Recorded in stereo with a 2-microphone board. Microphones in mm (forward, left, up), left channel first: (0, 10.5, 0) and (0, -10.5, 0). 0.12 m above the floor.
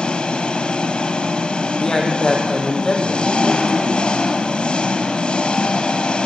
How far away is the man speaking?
About 5.5 m.